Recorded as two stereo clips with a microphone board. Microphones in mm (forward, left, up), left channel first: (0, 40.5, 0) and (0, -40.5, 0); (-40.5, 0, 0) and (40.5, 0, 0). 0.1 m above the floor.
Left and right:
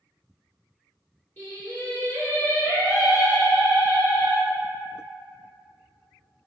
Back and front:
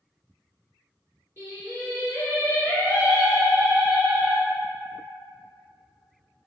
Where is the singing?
130° left, 1.8 m.